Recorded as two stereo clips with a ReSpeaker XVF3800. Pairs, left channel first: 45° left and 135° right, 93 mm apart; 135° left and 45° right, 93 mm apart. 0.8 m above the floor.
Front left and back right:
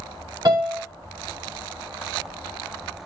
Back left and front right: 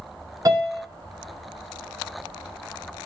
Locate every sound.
0.5 s a piano: 95° right, 1.9 m